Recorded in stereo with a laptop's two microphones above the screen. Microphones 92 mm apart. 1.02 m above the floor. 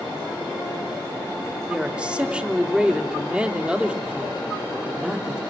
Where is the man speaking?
10° right (ahead or behind), 3 m.